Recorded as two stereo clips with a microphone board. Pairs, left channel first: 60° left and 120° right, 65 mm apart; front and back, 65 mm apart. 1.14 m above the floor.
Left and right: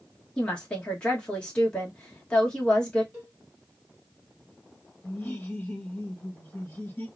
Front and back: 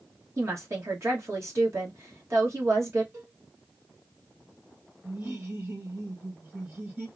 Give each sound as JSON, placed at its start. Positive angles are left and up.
{"t": 0.4, "sound": "a woman speaking", "azimuth_deg": 135, "distance_m": 1.3}
{"t": 3.1, "sound": "a cowbell", "azimuth_deg": 145, "distance_m": 3.0}
{"t": 5.0, "sound": "laughter", "azimuth_deg": 120, "distance_m": 1.4}